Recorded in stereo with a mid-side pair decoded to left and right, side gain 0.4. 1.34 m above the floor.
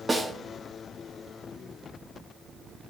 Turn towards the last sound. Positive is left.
turn(degrees=-25)